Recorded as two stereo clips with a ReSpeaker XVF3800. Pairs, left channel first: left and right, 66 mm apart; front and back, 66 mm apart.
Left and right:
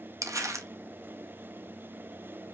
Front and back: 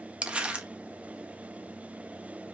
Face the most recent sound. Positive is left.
turn(degrees=-110)